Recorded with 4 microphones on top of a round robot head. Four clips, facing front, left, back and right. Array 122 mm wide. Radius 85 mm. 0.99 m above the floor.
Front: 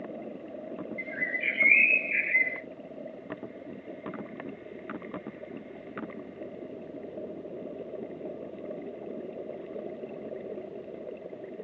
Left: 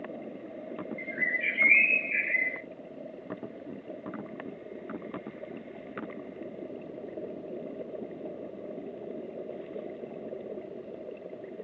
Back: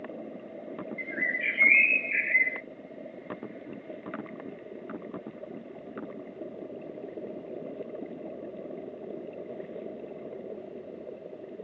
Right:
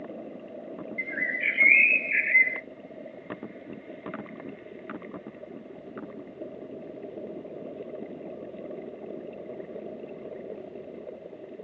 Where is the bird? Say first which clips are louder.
Right 3 dB, back 1 dB; 95° right, 3.5 m.